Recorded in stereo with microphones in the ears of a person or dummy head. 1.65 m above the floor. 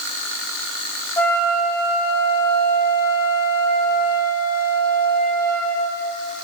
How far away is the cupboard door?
I don't hear a cupboard door.